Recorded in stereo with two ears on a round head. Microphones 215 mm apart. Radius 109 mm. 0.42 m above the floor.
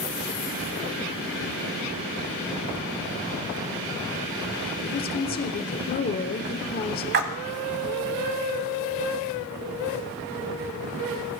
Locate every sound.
4.8 s a woman speaking: 40° left (ahead or behind), 1.1 m
7.1 s a splash: 40° right (ahead or behind), 1.1 m